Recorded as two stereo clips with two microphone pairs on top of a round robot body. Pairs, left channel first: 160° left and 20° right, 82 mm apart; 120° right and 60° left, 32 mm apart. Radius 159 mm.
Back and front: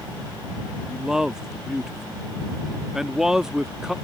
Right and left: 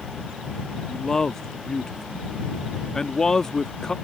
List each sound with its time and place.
0.9 s a man speaking: 80° right